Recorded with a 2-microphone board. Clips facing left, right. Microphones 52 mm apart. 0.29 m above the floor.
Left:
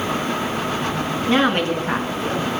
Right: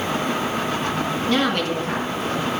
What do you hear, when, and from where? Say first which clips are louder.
1.3 s a woman speaking: left 4 dB; 30° left (ahead or behind), 4 m; by 2.5 s 40° left (ahead or behind), 4 m